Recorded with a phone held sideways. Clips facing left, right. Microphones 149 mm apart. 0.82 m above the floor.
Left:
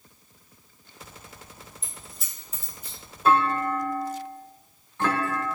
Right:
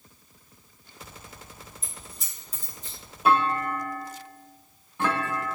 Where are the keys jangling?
5° right (ahead or behind), 1.5 m; by 3.0 s 15° left (ahead or behind), 1.1 m.